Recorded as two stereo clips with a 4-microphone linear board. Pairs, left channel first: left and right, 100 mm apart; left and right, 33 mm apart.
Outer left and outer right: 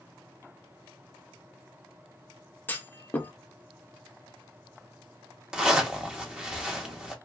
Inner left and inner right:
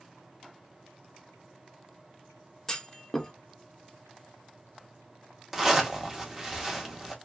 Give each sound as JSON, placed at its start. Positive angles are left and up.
{"t": 2.7, "sound": "a clunk", "side_deg": 20, "distance_m": 0.6}
{"t": 5.5, "sound": "a zipper", "side_deg": -10, "distance_m": 0.8}